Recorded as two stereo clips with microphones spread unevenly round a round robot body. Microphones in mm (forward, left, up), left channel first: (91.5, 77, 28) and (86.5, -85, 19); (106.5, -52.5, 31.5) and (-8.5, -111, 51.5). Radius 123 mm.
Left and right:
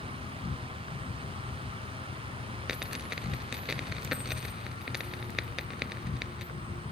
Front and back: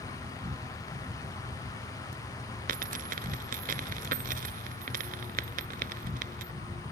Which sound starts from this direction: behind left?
An insect, at 0.0 s.